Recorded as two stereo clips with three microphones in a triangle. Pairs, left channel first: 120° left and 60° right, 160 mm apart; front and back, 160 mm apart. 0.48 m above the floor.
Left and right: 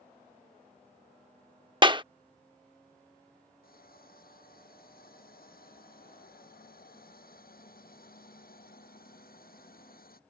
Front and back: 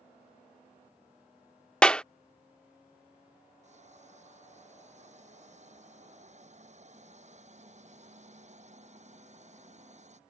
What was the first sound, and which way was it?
A clap, 80° right.